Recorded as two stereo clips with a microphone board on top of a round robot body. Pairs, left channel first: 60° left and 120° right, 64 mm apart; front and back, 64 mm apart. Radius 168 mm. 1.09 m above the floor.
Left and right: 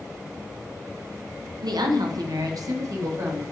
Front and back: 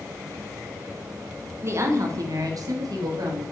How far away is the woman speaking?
About 1.0 m.